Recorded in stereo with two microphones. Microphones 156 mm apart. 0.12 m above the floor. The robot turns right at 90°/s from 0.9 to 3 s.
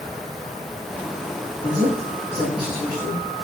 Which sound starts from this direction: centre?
A man speaking, at 1.6 s.